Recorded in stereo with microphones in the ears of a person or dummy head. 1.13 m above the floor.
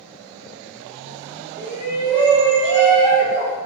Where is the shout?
35° right (ahead or behind), 0.7 m.